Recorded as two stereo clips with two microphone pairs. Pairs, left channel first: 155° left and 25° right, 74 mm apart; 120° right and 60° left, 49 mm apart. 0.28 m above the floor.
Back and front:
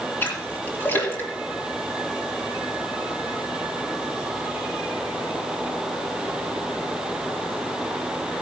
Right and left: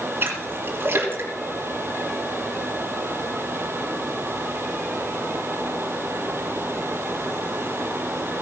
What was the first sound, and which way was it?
A splash, 95° left.